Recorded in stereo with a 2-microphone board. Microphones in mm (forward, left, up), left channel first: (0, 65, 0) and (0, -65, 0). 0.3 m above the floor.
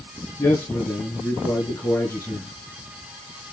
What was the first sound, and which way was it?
A man speaking, 20° left (ahead or behind).